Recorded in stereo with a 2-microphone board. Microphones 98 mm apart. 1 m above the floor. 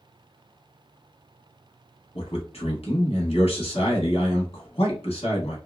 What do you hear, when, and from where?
2.1 s a man speaking: 80° left, 1.4 m